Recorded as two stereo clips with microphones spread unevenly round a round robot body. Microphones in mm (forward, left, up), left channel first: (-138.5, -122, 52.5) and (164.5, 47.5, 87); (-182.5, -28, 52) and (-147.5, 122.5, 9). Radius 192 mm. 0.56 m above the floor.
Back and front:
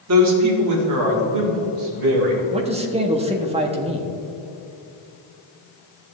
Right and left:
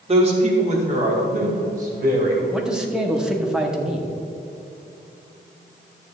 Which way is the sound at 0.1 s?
70° left.